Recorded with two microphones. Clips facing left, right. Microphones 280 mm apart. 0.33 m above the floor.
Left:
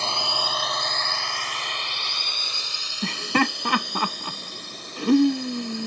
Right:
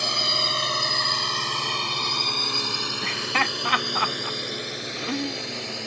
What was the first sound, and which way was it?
A drone, 15° right (ahead or behind).